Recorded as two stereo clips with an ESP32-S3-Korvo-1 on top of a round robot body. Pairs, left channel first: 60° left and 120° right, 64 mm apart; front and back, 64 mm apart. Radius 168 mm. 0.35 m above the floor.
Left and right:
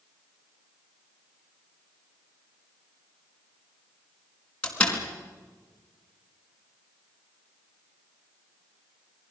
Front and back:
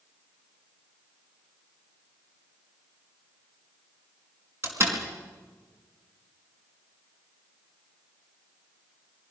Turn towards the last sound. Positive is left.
turn(degrees=130)